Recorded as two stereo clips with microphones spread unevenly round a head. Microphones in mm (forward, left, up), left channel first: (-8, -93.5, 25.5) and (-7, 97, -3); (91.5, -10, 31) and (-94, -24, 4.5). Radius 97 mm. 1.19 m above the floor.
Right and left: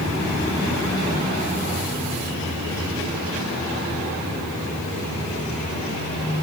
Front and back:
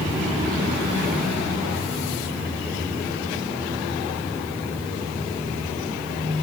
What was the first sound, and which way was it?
Only background noise.